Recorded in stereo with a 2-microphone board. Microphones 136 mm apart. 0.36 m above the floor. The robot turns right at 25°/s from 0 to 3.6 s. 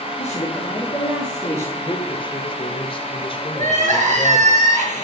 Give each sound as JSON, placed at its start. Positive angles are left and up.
{"t": 0.2, "sound": "a man speaking", "azimuth_deg": 125, "distance_m": 6.5}
{"t": 1.8, "sound": "a man speaking", "azimuth_deg": 55, "distance_m": 1.8}
{"t": 3.5, "sound": "crying", "side_deg": -60, "distance_m": 6.0}